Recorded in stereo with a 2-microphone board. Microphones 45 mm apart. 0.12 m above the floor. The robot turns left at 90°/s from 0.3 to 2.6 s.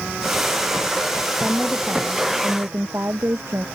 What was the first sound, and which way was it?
A woman speaking, 10° right.